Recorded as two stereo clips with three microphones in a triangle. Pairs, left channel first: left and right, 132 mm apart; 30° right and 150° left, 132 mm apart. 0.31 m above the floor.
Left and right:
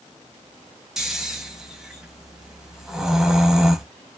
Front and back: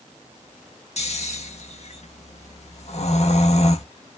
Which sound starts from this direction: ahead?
Snoring, at 1.0 s.